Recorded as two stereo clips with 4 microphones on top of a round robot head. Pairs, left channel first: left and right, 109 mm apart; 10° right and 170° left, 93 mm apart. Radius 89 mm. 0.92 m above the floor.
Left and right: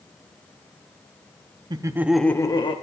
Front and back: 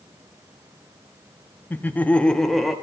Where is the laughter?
70° right, 0.8 m; by 2.7 s 85° left, 0.9 m.